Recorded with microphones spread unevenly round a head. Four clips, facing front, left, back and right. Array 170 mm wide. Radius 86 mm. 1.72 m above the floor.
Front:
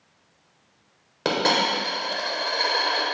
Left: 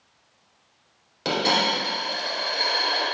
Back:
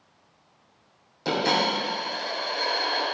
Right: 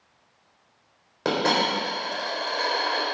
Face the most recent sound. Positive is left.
turn(degrees=-25)